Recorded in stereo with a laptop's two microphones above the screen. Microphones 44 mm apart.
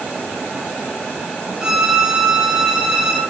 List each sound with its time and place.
1.6 s a violin: 10° right (ahead or behind), 0.5 m